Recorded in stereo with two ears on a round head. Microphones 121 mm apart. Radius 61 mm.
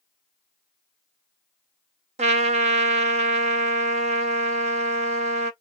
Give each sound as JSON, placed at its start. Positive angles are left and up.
{"t": 2.2, "sound": "a trumpet", "side_deg": -50, "distance_m": 0.9}